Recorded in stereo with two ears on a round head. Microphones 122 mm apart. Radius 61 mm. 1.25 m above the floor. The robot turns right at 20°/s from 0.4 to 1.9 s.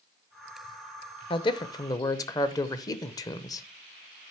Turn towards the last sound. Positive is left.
turn(degrees=25)  # may be behind; listen again after turning